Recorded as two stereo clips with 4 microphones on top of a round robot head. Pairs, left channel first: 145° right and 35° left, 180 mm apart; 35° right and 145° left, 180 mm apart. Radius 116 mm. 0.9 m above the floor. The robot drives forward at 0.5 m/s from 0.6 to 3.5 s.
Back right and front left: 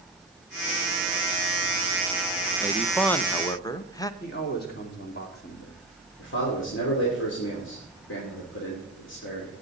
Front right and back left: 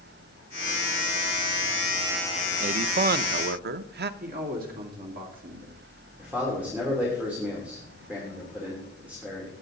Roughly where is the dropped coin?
I don't hear a dropped coin.